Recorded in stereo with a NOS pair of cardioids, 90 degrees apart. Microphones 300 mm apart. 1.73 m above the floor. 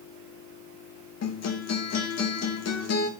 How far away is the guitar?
About 3 m.